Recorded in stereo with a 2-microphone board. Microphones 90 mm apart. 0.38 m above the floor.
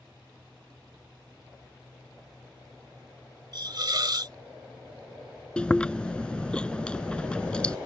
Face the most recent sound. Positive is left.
turn(degrees=10)  # may be behind; listen again after turning